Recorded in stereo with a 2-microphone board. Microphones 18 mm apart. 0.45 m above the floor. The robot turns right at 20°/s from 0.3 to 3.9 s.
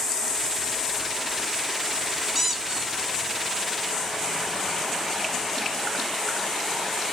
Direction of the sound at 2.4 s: 15° right (ahead or behind).